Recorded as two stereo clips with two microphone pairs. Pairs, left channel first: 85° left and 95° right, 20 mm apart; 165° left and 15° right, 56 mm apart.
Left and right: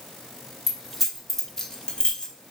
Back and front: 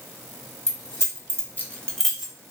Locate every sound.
0.7 s keys jangling: 165° right, 1.2 m; by 2.3 s 55° left, 0.9 m